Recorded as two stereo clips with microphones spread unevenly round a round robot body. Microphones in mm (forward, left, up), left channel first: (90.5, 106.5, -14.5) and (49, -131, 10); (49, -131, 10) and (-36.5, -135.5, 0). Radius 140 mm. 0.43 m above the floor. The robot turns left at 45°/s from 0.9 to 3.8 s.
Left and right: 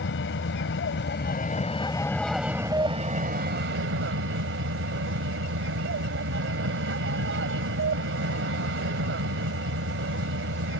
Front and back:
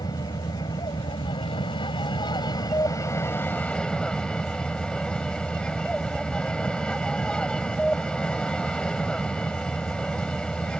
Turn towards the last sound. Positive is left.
turn(degrees=-75)